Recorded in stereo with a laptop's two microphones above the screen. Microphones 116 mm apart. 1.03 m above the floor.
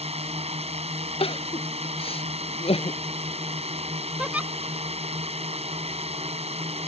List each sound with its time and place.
0.0 s a drone: 65° right (ahead or behind)
1.2 s crying: 55° left (ahead or behind)
4.2 s a giggle: 10° right (ahead or behind)